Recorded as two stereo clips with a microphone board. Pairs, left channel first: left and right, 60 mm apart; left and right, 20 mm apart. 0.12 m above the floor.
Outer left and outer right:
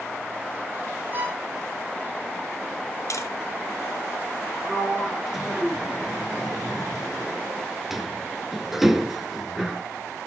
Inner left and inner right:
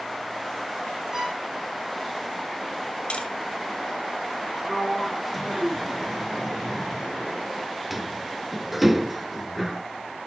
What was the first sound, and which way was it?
A violin, 30° right (ahead or behind).